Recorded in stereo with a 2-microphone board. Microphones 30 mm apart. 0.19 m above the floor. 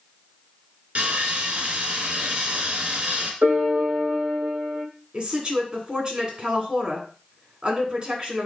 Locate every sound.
0.9 s sawing: 55° right (ahead or behind), 2.5 m
3.4 s a piano: 80° right, 2.5 m
5.1 s a woman speaking: 30° right (ahead or behind), 2 m